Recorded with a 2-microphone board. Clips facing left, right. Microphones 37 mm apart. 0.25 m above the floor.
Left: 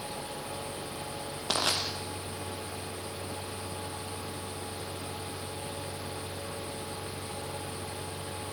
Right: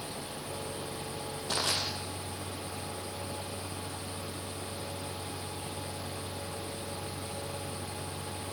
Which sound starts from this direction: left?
Crushing, at 1.5 s.